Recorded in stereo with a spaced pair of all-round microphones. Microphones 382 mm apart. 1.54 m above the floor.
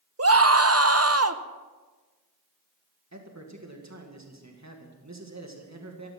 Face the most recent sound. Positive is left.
turn(degrees=-50)  # may be behind; listen again after turning